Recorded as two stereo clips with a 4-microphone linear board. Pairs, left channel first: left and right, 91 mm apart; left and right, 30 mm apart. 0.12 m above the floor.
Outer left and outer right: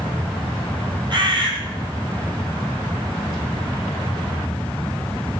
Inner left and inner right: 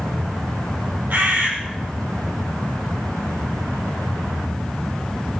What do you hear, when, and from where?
1.1 s a bird: 65° right (ahead or behind), 3.5 m